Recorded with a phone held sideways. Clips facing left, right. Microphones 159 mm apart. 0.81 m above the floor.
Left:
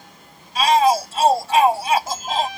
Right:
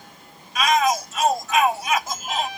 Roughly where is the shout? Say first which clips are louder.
Left 4 dB; left.